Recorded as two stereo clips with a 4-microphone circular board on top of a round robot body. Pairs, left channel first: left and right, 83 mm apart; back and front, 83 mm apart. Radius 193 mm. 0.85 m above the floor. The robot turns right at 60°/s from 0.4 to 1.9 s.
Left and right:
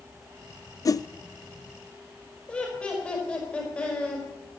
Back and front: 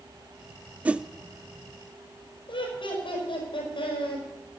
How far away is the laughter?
About 5 m.